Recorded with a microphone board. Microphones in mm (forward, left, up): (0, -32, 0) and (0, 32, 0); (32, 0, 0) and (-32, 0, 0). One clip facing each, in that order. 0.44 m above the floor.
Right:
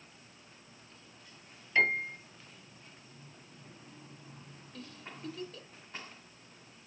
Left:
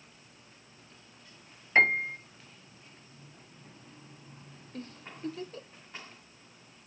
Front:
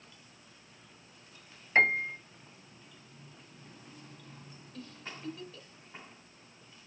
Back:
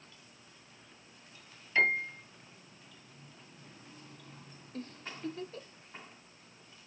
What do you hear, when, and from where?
1.8 s a piano: 50° left, 1.9 m
4.7 s a giggle: 140° left, 0.8 m